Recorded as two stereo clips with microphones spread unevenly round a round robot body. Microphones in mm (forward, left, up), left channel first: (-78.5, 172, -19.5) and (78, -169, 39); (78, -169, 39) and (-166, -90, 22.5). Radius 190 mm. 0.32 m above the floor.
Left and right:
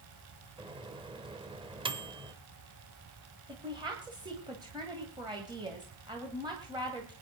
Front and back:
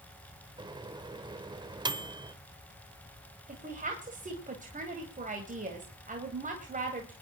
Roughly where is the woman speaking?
Behind right.